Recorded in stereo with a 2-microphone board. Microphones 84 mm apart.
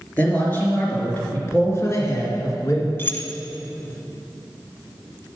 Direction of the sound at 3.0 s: 25° left (ahead or behind).